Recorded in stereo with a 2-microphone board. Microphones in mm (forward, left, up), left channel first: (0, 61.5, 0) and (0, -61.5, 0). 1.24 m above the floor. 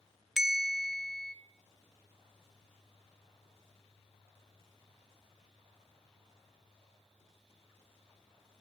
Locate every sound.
0.4 s a bell: centre (ahead or behind), 0.6 m